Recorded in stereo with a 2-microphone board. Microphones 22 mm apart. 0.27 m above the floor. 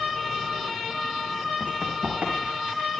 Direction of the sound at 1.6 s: 75° right (ahead or behind).